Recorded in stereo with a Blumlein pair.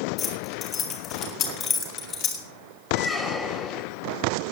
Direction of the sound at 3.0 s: 5° left.